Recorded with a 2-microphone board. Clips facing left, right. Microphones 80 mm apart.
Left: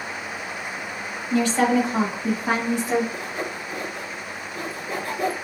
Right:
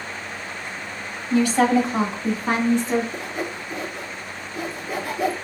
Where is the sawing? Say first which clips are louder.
Right 1 dB; 5° right (ahead or behind), 1.5 m.